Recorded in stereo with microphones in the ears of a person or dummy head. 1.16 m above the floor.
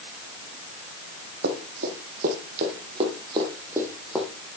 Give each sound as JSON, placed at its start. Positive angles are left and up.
{"t": 1.4, "sound": "running footsteps", "side_deg": -65, "distance_m": 3.0}